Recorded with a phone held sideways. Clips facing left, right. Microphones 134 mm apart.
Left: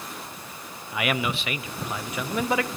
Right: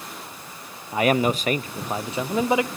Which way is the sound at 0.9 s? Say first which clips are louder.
Right 7 dB; 35° right (ahead or behind).